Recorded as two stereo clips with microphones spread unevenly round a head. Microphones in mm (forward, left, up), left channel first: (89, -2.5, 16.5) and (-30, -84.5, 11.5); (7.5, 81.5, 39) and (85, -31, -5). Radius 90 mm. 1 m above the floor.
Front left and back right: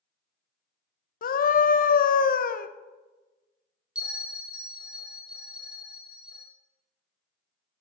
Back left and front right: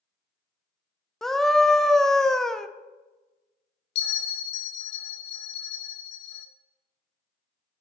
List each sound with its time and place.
1.2 s a scream: 25° left, 0.7 m
4.0 s a bell: 130° left, 0.8 m